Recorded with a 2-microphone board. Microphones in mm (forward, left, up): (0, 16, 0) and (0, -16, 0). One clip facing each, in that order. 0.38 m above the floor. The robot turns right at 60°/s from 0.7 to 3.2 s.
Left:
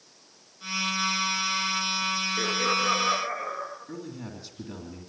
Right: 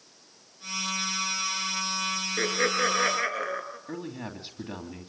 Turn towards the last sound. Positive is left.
turn(degrees=-35)  # may be behind; listen again after turning